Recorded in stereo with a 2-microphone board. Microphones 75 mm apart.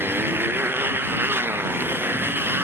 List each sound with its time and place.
0.0 s a motorcycle: 30° right (ahead or behind)